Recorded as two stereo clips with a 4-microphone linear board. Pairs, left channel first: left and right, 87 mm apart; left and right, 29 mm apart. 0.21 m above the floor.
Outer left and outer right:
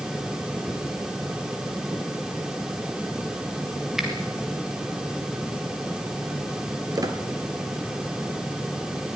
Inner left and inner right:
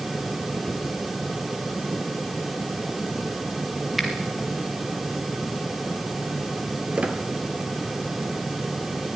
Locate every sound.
4.0 s a finger snap: 5° right (ahead or behind), 3.5 m
7.0 s a squeak: 45° right (ahead or behind), 1.9 m